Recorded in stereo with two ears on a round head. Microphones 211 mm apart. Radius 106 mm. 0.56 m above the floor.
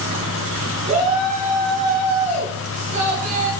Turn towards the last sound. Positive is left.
turn(degrees=-30)  # may be behind; listen again after turning